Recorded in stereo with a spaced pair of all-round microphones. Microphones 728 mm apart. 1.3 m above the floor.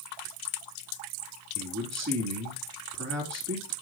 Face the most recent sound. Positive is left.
turn(degrees=-20)  # may be behind; listen again after turning